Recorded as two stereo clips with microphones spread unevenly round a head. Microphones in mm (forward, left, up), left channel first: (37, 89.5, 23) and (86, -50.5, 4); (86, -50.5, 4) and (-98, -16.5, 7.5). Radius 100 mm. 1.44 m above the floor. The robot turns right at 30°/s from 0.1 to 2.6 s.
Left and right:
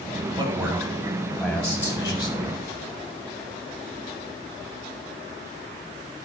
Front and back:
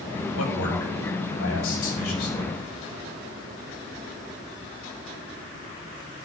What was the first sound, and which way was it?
A man speaking, 15° right.